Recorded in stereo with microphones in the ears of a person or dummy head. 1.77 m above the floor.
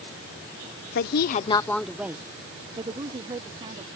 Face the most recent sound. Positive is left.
turn(degrees=-30)  # may be behind; listen again after turning